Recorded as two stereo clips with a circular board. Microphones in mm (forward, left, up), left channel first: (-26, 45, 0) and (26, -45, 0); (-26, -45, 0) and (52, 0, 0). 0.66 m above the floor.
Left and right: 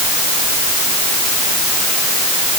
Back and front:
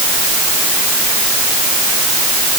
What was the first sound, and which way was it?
Only background noise.